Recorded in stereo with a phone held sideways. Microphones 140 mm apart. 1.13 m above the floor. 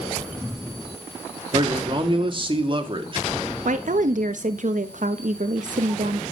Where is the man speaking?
40° right (ahead or behind), 2 m.